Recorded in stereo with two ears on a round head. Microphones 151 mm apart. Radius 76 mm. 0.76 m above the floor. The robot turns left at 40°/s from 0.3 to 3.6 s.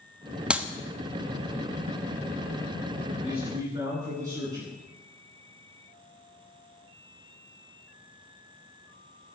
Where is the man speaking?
5° right (ahead or behind), 9.5 m; by 4.7 s 20° right (ahead or behind), 9.5 m.